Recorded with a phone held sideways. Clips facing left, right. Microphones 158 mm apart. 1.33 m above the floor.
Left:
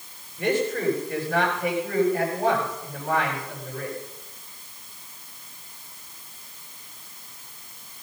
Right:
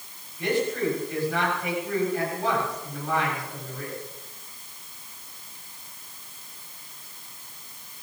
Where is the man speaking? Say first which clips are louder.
Left 1 dB; 45° left (ahead or behind), 7.5 m.